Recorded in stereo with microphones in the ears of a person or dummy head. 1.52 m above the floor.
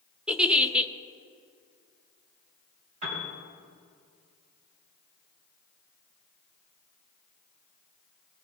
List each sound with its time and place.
0.3 s a giggle: 5° right (ahead or behind), 0.6 m
3.0 s a piano: 40° right (ahead or behind), 4 m